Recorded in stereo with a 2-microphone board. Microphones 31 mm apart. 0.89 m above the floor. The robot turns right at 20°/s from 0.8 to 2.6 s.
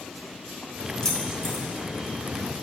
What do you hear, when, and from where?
1.0 s keys jangling: 15° left (ahead or behind), 1.5 m; by 1.6 s 5° left (ahead or behind), 1.5 m